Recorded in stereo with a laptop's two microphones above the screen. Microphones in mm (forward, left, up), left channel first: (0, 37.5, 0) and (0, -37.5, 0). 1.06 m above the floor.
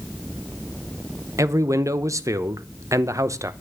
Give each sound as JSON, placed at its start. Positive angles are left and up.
{"t": 1.4, "sound": "a man speaking", "side_deg": -45, "distance_m": 0.8}